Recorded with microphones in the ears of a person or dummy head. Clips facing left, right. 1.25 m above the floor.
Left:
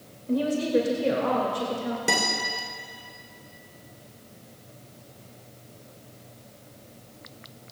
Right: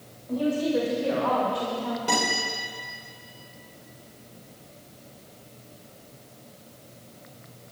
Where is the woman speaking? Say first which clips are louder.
Left 1 dB; 40° left (ahead or behind), 2.5 m; by 2.0 s 15° left (ahead or behind), 2 m.